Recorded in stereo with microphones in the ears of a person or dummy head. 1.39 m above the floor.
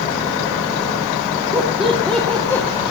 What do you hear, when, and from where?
1.5 s laughter: 5° right (ahead or behind), 2.5 m; by 2.7 s 10° left (ahead or behind), 2 m